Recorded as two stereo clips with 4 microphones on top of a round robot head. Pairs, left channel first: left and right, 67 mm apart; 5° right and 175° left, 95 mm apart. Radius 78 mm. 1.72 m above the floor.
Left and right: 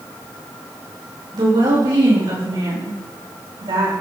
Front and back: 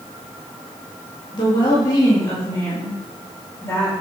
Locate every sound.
1.3 s a woman speaking: 55° right, 4 m; by 3.9 s 70° right, 5 m